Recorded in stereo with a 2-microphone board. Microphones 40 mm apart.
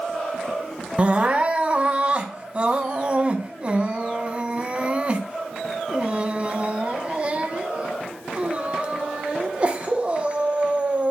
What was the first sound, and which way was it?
Crying, 30° right (ahead or behind).